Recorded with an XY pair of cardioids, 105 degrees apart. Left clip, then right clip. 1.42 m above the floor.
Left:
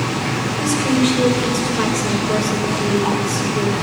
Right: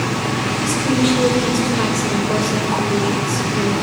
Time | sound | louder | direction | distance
0.6 | a woman speaking | left 2 dB | 25° left | 5 m